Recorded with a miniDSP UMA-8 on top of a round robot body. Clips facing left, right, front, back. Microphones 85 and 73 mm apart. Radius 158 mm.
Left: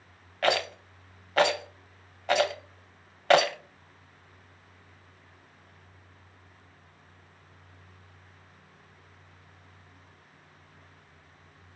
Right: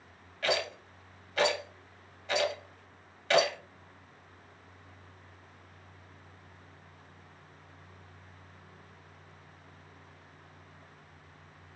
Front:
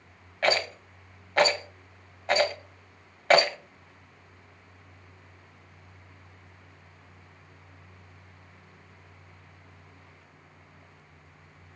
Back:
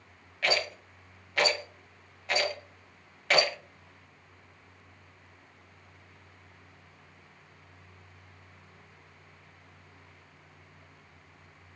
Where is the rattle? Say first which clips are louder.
Left 5 dB, front 4 dB; 55° left, 0.6 m.